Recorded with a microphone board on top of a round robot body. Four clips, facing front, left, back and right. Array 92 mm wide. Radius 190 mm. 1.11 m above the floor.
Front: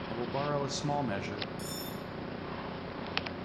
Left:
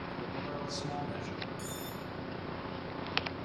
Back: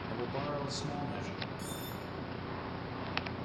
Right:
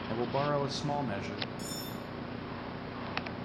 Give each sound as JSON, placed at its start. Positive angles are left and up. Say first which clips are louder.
{"t": 0.1, "sound": "a man speaking", "louder": "right 12 dB, front 4 dB", "azimuth_deg": -80, "distance_m": 1.7}
{"t": 1.6, "sound": "cutlery clinking", "louder": "right 1 dB, front 2 dB", "azimuth_deg": -20, "distance_m": 4.0}